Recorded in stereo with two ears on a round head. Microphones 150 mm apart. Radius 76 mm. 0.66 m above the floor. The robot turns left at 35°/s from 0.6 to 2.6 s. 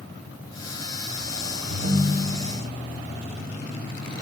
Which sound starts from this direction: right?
A ringtone, at 1.7 s.